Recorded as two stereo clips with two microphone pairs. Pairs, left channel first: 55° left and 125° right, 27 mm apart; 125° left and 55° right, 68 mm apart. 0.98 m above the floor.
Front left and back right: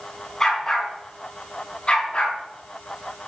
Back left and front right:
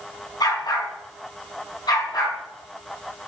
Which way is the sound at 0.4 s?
130° left.